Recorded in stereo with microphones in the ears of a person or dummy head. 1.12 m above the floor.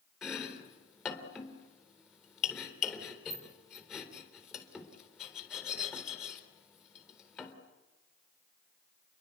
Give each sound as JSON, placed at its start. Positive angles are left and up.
{"t": 0.2, "sound": "chopping", "side_deg": 15, "distance_m": 3.5}